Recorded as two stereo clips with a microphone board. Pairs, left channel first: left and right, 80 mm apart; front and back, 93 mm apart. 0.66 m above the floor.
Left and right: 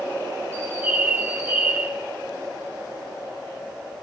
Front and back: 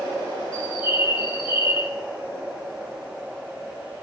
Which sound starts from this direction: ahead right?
A bird, at 0.5 s.